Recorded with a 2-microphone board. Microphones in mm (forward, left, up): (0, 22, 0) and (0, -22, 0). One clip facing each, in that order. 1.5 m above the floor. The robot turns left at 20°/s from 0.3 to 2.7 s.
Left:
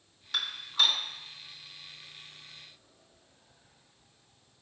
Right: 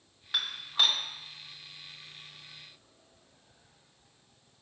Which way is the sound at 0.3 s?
20° right (ahead or behind).